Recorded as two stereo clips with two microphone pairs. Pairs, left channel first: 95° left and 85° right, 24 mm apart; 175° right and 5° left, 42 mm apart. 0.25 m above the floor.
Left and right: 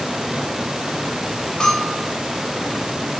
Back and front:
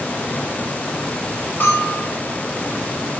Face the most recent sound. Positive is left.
turn(degrees=155)